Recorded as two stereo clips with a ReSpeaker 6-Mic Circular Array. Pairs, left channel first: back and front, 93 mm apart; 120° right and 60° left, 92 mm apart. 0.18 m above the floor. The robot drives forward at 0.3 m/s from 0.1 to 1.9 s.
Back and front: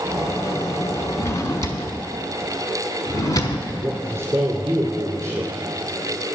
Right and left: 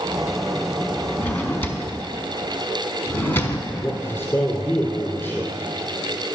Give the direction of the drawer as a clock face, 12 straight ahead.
6 o'clock.